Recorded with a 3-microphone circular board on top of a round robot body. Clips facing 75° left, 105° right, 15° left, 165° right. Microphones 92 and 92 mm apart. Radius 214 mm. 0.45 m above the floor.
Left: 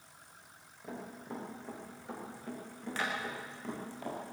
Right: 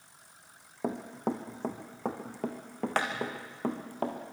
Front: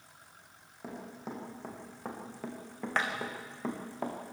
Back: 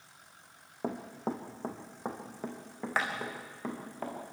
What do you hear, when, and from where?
0.8 s running footsteps: 120° right, 2.5 m; by 4.2 s 65° right, 4 m